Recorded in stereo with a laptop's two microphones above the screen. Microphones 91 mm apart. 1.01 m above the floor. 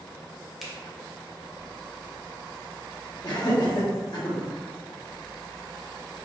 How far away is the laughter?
About 1.2 m.